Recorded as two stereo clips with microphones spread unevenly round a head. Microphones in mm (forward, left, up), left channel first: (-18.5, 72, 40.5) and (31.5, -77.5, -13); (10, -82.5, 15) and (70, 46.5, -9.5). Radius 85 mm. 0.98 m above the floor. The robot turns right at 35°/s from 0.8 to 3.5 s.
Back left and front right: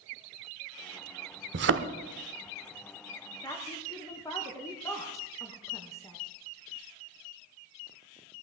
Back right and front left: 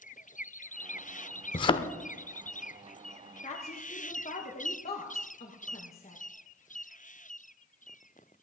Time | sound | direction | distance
1.5 | a thud | 95° right | 0.8 m
3.4 | a woman speaking | 170° right | 1.2 m